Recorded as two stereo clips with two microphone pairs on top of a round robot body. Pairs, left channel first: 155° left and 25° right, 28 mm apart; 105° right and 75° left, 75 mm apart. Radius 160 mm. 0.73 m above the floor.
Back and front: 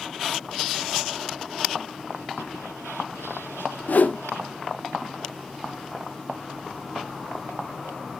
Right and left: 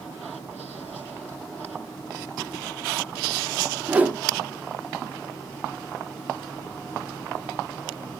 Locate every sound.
3.9 s a whoosh: 150° left, 1.1 m